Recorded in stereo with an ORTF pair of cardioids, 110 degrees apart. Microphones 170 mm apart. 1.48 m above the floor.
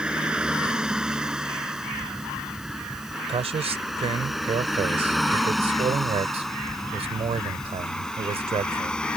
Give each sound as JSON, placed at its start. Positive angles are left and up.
{"t": 0.0, "sound": "a vehicle", "azimuth_deg": -5}
{"t": 3.3, "sound": "a man speaking", "azimuth_deg": -35}